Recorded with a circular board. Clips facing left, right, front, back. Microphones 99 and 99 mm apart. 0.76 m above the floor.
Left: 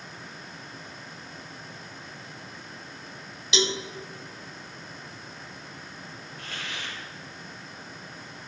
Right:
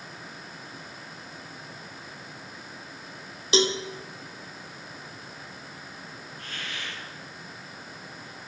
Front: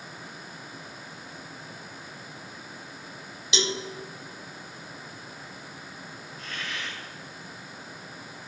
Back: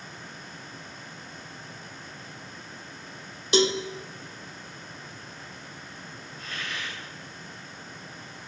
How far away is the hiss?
About 2.5 m.